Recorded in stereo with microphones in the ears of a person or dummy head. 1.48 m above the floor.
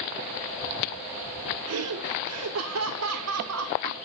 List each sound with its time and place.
1.7 s laughter: 80° right, 0.7 m